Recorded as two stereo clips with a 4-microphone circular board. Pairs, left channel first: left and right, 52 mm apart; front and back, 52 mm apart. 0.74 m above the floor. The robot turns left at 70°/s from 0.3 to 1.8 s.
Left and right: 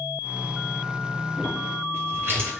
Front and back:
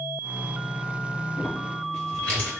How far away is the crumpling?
About 2.0 m.